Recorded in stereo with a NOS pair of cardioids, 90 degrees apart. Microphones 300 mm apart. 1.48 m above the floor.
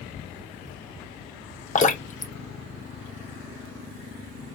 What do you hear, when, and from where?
1.8 s dripping: 25° left, 0.8 m